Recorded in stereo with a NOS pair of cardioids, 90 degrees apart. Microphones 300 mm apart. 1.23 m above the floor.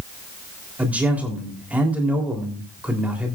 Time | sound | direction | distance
0.8 | a man speaking | 5° right | 3.5 m